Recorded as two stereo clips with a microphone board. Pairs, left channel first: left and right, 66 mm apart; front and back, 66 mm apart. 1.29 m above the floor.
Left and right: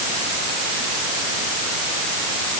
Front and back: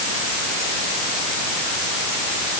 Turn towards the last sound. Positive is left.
No sound to turn to.